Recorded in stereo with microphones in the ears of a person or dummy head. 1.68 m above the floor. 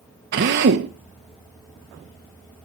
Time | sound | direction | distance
0.3 | a drill | 55° right (ahead or behind) | 1.1 m